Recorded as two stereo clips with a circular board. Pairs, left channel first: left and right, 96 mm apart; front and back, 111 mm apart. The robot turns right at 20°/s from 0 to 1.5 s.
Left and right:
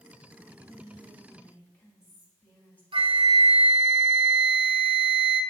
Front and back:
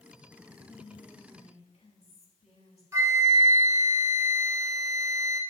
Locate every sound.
0.6 s whispering: straight ahead, 4 m; by 2.8 s 20° left, 4 m
2.9 s a flute: 115° right, 1.1 m